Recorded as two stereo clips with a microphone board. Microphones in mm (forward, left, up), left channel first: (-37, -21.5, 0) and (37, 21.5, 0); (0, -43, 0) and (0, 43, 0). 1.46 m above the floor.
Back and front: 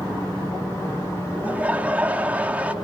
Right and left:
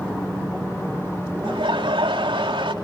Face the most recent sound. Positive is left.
turn(degrees=100)